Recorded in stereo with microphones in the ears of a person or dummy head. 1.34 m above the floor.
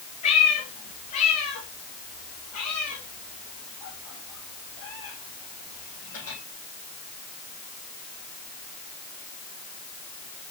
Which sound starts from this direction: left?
A cat meowing, at 0.2 s.